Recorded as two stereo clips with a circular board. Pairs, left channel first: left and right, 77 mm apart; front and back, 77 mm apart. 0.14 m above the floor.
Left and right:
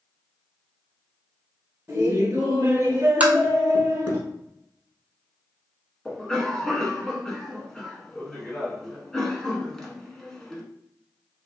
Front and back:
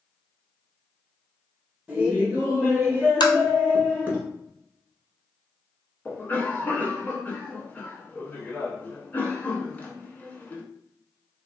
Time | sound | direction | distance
1.9 | laughter | 120° right | 1.2 m
3.2 | tapping | 20° right | 0.7 m
6.0 | a cough | 15° left | 1.1 m